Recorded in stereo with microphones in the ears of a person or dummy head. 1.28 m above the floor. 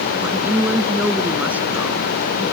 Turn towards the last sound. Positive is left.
turn(degrees=0)  # may be behind; listen again after turning